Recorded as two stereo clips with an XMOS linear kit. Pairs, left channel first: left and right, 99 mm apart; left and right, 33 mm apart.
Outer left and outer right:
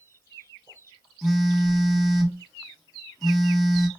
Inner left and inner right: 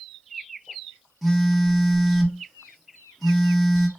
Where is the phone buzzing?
Centre (ahead or behind), 1.1 m.